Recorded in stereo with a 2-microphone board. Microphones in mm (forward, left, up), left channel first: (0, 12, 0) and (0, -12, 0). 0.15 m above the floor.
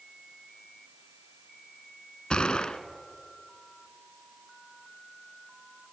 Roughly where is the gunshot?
Left.